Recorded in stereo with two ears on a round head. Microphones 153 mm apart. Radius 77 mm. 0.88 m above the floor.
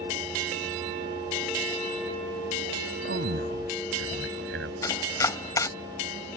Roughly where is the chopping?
Centre.